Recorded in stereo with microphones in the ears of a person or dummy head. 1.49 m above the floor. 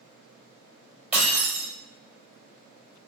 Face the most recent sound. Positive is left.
turn(degrees=-10)  # may be behind; listen again after turning